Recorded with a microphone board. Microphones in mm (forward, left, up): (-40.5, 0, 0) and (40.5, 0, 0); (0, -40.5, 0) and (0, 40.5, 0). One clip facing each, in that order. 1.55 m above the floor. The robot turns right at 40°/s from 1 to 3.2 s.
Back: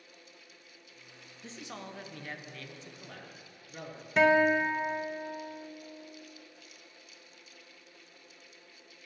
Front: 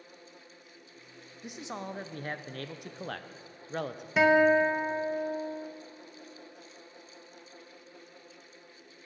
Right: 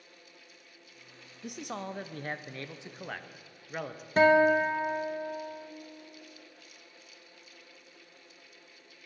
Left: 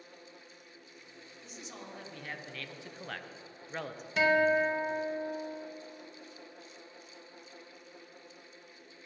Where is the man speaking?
75° right, 0.6 m; by 4.1 s 5° right, 0.6 m.